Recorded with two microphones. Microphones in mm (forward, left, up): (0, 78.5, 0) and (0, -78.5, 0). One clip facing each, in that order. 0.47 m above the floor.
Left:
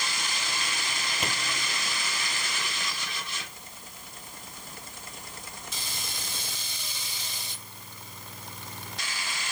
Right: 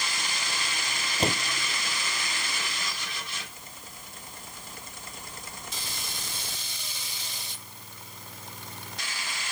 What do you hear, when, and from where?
1.2 s a door slam: 35° right (ahead or behind)